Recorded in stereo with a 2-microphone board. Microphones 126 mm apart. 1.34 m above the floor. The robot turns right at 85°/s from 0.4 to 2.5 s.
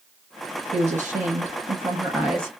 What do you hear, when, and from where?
0.7 s a woman speaking: 135° right, 1.1 m; by 2.5 s 15° left, 1.1 m